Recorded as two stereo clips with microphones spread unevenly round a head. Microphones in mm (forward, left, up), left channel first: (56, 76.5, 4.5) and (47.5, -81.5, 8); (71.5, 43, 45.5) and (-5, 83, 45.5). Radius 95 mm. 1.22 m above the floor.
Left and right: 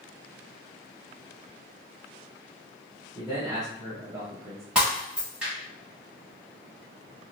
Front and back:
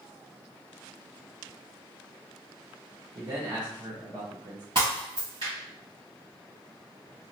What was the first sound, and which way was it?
A man speaking, 165° right.